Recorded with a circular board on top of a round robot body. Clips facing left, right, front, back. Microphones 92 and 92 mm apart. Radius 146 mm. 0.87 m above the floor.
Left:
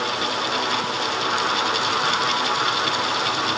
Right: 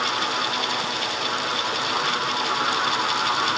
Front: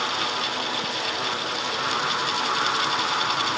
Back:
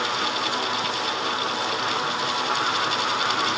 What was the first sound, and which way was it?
Only background noise.